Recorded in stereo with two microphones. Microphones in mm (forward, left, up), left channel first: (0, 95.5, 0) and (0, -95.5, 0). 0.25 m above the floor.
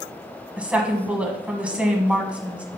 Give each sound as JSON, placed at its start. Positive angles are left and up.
{"t": 0.6, "sound": "a woman speaking", "side_deg": -5, "distance_m": 1.7}